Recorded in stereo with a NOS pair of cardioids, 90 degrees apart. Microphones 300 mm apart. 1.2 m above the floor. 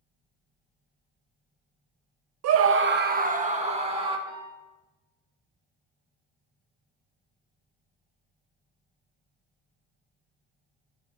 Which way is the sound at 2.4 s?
60° right.